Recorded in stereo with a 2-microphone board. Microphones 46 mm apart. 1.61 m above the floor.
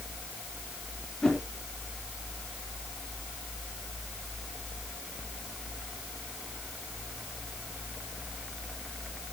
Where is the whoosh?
15° left (ahead or behind), 4 m.